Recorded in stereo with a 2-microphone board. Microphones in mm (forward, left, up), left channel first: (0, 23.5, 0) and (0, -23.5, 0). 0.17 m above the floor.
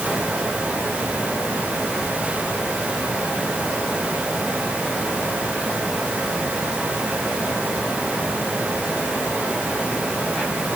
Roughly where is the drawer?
No drawer in this recording.